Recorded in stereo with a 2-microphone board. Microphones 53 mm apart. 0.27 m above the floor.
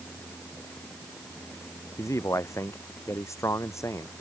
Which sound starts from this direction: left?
A man speaking, at 2.0 s.